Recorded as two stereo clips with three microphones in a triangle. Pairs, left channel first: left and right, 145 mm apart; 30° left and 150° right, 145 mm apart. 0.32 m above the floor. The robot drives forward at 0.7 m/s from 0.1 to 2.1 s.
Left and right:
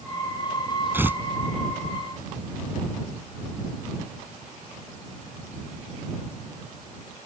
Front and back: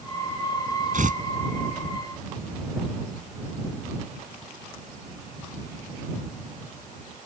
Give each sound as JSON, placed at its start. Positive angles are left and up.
{"t": 0.9, "sound": "tearing paper", "azimuth_deg": -165}